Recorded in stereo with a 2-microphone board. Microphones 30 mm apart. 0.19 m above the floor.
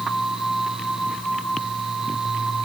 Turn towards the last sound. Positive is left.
No sound to turn to.